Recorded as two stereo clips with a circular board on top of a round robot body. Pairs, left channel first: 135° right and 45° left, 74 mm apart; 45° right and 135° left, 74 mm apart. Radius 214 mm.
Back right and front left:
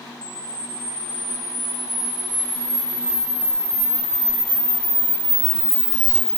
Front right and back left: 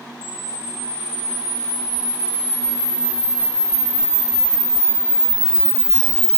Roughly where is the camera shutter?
Ahead left.